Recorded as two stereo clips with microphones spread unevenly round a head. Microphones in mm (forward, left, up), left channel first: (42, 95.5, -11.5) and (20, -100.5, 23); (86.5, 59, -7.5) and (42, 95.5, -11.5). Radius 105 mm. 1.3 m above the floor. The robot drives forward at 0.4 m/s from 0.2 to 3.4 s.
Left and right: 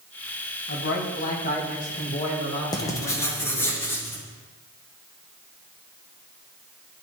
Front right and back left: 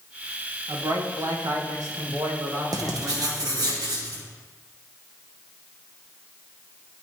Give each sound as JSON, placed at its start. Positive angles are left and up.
{"t": 0.7, "sound": "a man speaking", "azimuth_deg": 115, "distance_m": 1.2}
{"t": 2.7, "sound": "writing", "azimuth_deg": 155, "distance_m": 0.6}